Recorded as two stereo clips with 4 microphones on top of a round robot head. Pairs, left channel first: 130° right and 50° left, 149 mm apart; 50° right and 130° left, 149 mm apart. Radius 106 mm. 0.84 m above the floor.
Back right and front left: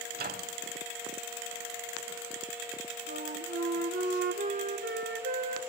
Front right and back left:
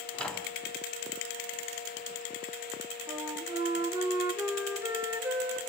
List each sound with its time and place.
0.1 s a microwave: 30° left, 2 m
3.1 s a flute: 55° left, 2 m